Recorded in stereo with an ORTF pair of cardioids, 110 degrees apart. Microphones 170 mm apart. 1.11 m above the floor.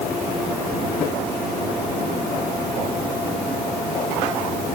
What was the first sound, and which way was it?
Only background noise.